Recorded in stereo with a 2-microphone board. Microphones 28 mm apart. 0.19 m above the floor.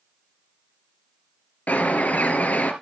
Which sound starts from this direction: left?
A bird, at 1.7 s.